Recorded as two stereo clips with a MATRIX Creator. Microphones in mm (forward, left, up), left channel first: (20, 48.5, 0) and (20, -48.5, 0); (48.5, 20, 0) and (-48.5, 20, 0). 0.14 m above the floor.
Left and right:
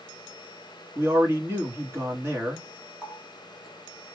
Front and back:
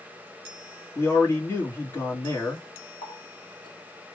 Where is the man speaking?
45° right, 2 m.